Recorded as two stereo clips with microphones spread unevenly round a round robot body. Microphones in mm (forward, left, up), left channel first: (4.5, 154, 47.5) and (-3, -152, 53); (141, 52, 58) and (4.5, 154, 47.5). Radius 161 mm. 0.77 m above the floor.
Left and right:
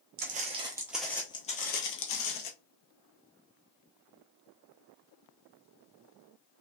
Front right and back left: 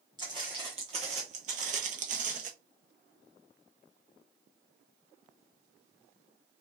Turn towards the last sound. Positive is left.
turn(degrees=110)